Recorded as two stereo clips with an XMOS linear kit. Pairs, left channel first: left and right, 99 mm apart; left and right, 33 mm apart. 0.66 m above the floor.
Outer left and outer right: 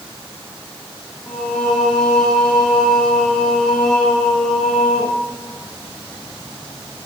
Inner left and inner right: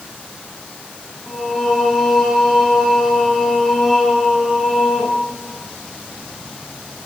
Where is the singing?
5° left (ahead or behind), 3 m.